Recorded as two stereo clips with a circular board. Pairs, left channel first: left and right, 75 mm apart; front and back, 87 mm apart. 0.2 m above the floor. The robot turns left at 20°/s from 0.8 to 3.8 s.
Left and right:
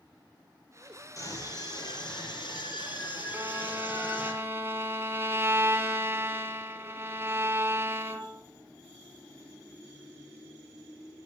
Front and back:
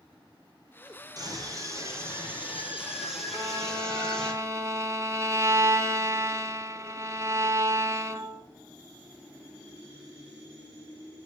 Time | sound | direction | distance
1.2 | a scream | 135° left | 4.5 m
3.3 | a violin | 130° right | 0.7 m